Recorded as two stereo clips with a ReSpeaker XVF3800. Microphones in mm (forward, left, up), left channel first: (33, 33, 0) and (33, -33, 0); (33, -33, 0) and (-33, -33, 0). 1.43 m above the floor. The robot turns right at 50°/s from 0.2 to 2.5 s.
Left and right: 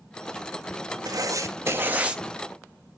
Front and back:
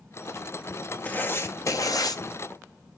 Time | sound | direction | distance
1.1 | writing | 70° right | 0.9 m